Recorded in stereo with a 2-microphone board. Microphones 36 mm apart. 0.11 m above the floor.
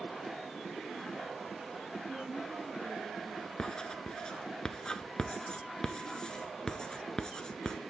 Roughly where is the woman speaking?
Right.